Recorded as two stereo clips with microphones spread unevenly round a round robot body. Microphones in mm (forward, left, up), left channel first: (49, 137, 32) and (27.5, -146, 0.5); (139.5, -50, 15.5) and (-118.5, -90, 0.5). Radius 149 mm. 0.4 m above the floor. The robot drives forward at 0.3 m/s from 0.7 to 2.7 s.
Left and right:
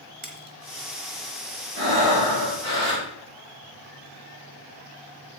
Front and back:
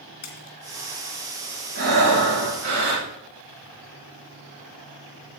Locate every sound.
0.2 s a splash: 25° right, 2.5 m
1.8 s breathing: 140° right, 5.5 m